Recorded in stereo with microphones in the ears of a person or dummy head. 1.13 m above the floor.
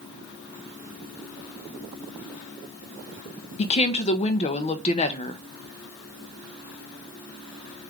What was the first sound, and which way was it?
A woman speaking, 25° left (ahead or behind).